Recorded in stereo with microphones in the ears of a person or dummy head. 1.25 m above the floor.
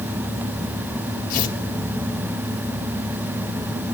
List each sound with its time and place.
1.3 s tearing paper: 45° left (ahead or behind), 4 m